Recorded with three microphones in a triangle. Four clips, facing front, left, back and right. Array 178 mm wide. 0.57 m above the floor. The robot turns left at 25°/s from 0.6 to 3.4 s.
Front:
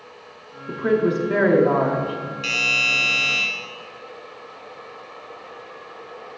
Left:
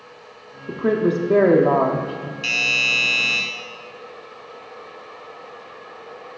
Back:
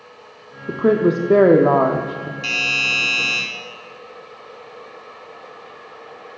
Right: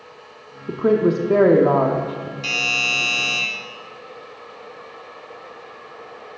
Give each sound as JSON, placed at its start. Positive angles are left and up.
{"t": 0.7, "sound": "a woman speaking", "azimuth_deg": -155, "distance_m": 0.7}
{"t": 2.4, "sound": "a doorbell", "azimuth_deg": -125, "distance_m": 2.0}